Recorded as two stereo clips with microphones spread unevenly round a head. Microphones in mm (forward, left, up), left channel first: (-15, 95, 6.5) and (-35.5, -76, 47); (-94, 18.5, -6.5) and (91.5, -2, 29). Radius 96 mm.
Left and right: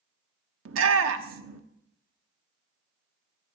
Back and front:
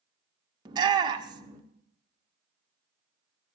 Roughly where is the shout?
Right.